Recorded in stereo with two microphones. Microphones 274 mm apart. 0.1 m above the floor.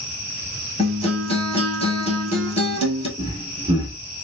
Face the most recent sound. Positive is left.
turn(degrees=-15)  # may be behind; listen again after turning